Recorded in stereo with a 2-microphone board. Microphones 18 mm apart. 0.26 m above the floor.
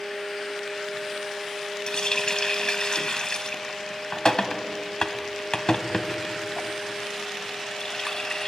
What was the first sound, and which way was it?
A running tap, 45° left (ahead or behind).